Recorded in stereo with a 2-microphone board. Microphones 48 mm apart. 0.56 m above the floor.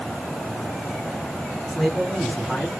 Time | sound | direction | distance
1.7 | a man speaking | 15° left (ahead or behind) | 7 m